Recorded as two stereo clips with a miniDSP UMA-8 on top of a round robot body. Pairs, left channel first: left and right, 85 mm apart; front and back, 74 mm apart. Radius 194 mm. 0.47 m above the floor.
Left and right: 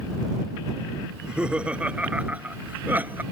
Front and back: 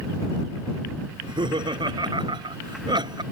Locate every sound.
1.1 s laughter: 170° right; by 3.2 s 160° right